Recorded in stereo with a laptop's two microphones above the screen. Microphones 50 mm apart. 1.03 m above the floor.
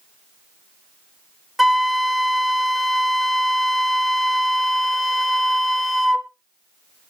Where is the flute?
Centre (ahead or behind), 0.7 m.